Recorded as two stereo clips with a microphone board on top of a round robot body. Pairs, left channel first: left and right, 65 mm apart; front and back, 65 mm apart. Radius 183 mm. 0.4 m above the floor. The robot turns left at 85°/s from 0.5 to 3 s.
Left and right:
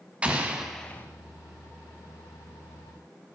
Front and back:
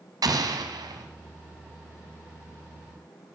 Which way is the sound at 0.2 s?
160° right.